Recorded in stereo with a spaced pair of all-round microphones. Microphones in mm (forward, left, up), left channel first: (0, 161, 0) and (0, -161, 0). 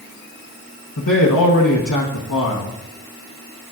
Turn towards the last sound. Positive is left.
turn(degrees=80)